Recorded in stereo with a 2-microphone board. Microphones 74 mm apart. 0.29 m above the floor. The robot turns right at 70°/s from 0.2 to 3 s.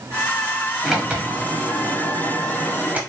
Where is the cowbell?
I don't hear a cowbell.